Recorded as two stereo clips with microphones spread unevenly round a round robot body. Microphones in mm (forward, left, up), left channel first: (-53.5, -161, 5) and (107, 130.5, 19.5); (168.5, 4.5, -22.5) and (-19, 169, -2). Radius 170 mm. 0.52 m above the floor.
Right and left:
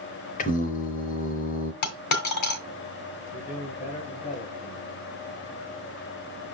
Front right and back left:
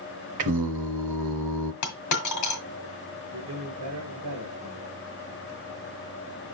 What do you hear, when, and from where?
0.4 s singing: 170° left, 0.7 m
1.8 s a dropped coin: 80° right, 1.6 m
3.3 s a man speaking: 175° left, 2.5 m